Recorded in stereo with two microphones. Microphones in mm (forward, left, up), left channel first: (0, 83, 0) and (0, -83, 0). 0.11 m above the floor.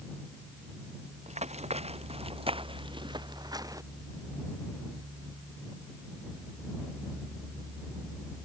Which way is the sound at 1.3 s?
45° right (ahead or behind).